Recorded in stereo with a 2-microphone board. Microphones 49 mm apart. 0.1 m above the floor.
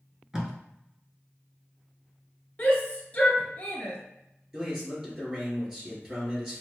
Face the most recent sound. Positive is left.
turn(degrees=-10)  # may be behind; listen again after turning